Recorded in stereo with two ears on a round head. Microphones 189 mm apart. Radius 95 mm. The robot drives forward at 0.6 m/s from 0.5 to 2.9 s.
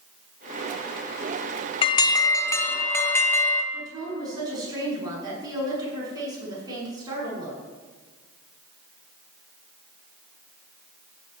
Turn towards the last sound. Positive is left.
turn(degrees=-20)  # may be behind; listen again after turning